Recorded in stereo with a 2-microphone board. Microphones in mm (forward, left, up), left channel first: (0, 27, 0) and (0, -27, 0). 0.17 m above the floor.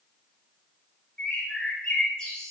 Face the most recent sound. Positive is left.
turn(degrees=20)  # may be behind; listen again after turning